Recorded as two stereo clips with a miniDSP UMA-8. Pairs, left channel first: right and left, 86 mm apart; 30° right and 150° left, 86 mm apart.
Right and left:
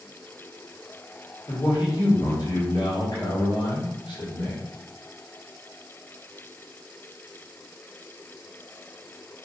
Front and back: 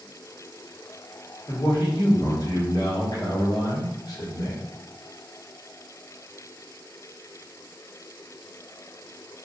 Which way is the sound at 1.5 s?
70° right.